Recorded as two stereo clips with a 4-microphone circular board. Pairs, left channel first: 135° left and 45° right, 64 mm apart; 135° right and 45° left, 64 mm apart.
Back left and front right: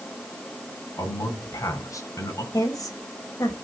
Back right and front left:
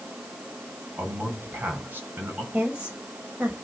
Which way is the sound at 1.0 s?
105° left.